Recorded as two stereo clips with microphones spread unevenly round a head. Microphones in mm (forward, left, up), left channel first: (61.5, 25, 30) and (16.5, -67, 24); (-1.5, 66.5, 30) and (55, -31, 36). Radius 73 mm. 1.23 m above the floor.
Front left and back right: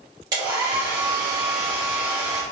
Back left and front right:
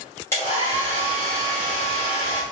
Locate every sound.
0.3 s a hair dryer: 170° right, 1.8 m